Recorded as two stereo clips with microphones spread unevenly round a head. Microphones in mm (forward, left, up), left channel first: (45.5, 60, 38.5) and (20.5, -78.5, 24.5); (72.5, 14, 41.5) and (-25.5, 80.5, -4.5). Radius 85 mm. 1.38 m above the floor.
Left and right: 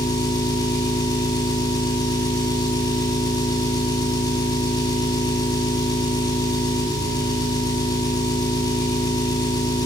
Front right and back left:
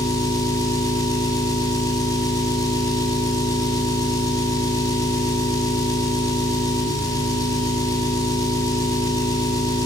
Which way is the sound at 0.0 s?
20° left.